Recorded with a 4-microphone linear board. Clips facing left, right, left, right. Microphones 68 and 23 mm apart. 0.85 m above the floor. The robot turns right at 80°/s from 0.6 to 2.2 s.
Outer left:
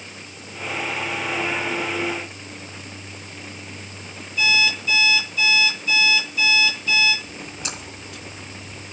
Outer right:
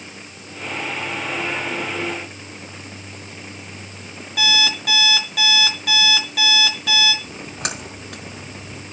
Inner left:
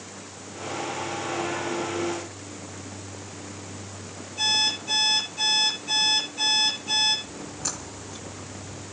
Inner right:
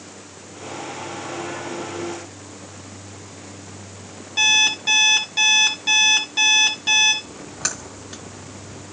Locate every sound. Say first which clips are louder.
4.4 s an alarm clock: even, inner right 7 dB; 75° right (ahead or behind), 4.5 m
7.2 s a splash: outer right 4 dB, inner right 5 dB; 65° right (ahead or behind), 5.5 m